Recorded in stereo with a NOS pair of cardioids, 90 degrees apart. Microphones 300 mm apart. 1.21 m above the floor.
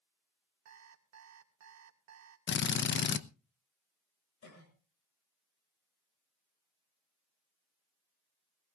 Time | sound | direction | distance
0.7 | an alarm clock | 70° right | 1.7 m
2.5 | a drill | 40° left | 0.8 m
4.4 | a cough | 60° left | 7.5 m